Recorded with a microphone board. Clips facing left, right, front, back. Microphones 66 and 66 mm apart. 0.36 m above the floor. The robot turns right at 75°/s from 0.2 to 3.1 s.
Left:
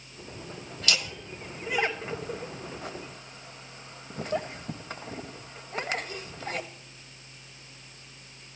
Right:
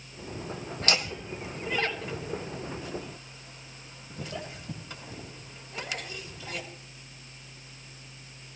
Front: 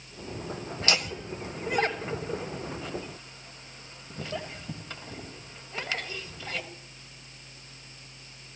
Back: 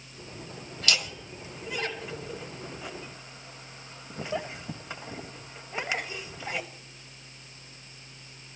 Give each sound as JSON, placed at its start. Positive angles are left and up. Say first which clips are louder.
{"t": 0.8, "sound": "laughter", "louder": "right 1 dB, front 1 dB", "azimuth_deg": -55, "distance_m": 1.8}